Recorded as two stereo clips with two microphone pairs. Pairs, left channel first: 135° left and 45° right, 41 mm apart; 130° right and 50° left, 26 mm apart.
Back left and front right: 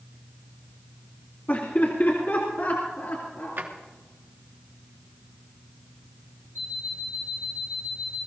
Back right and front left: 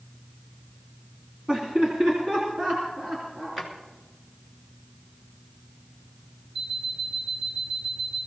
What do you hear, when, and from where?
1.5 s laughter: 95° left, 2 m
3.6 s a drawer: 25° right, 2.5 m
6.5 s an alarm clock: 125° left, 1.9 m